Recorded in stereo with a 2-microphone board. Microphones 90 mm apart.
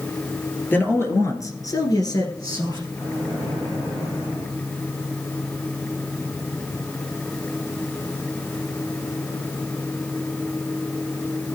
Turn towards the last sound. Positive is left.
turn(degrees=40)  # may be behind; listen again after turning